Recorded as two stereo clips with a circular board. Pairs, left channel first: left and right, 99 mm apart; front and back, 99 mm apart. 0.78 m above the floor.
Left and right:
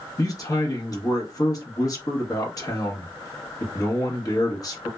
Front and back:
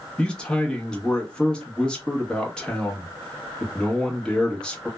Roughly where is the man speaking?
Left.